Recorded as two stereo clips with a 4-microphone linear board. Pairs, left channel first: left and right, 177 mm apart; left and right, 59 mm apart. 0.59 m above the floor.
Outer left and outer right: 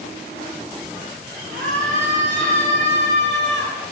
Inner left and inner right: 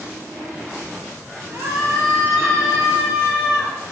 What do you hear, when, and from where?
1.5 s a scream: 60° right (ahead or behind), 8.5 m; by 3.8 s 40° right (ahead or behind), 6.5 m